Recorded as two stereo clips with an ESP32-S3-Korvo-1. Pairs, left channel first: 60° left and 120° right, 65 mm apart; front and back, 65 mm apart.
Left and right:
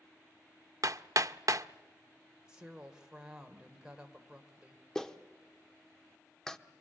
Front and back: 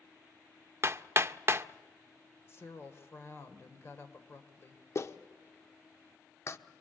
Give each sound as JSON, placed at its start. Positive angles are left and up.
{"t": 0.8, "sound": "hammering", "azimuth_deg": -135, "distance_m": 0.5}
{"t": 2.5, "sound": "a woman speaking", "azimuth_deg": -45, "distance_m": 2.5}
{"t": 5.0, "sound": "a clap", "azimuth_deg": -20, "distance_m": 0.9}